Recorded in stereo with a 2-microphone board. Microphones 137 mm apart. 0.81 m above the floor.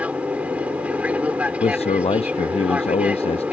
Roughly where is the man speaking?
Left.